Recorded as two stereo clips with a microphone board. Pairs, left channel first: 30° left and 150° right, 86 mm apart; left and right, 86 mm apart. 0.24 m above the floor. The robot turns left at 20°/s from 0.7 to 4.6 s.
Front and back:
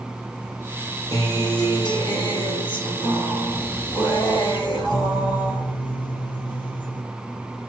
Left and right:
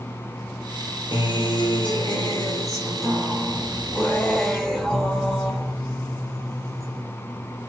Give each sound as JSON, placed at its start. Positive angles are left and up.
{"t": 1.1, "sound": "a guitar", "azimuth_deg": 75, "distance_m": 3.0}